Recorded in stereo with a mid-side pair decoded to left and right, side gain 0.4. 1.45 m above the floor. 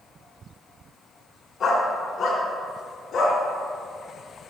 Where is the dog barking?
65° left, 3.5 m; by 3.4 s 70° left, 5 m.